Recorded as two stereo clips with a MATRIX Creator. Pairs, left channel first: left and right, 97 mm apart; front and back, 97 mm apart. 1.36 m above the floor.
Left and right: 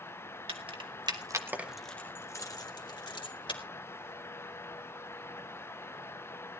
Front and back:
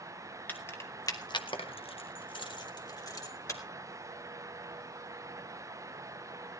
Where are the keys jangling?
70° right, 2.0 m; by 3.6 s 55° left, 3 m.